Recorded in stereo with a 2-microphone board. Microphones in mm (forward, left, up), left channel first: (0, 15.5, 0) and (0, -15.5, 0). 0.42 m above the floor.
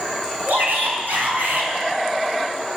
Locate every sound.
0.5 s a shout: 75° right (ahead or behind), 5 m